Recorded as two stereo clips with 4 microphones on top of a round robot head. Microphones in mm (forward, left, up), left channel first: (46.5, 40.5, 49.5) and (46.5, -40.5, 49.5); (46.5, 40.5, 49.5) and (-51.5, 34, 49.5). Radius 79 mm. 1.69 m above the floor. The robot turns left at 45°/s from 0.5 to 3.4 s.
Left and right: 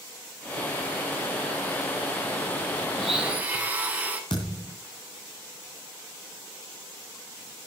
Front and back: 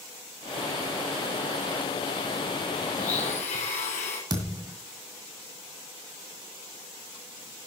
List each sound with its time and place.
3.0 s a blender: 5° right, 3.5 m; by 4.2 s 25° right, 3.5 m
4.3 s a thud: 145° left, 2 m